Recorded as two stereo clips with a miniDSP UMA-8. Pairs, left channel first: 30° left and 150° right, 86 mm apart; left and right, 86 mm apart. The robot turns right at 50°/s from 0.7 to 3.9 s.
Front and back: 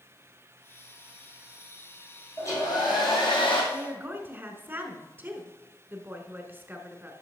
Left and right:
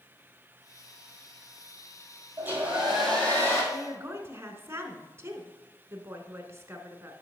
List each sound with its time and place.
2.4 s a hair dryer: 25° right, 3 m; by 3.6 s 35° left, 3 m
3.7 s a woman speaking: 120° right, 1.2 m; by 7.1 s 110° right, 1.2 m